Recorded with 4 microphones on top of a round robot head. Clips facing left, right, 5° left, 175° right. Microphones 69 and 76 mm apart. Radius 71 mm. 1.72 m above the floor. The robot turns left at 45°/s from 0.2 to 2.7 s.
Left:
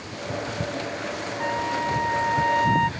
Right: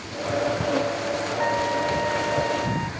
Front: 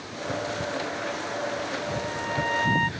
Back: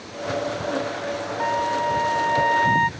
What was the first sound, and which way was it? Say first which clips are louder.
A trumpet: right 1 dB, back 8 dB; 170° right.